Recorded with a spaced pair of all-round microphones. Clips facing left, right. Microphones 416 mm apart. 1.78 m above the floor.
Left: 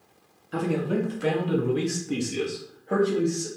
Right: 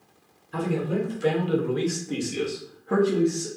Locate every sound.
0.5 s a man speaking: 85° left, 1.1 m; by 3.5 s 35° right (ahead or behind), 1.0 m